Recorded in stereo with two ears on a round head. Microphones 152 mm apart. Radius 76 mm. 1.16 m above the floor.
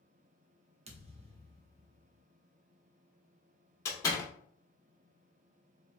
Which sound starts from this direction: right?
A thud, at 0.9 s.